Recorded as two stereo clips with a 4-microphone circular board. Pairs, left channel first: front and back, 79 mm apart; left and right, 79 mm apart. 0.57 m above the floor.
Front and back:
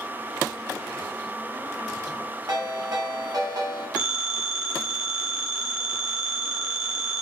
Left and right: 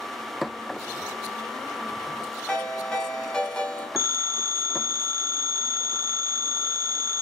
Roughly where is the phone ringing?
Behind left.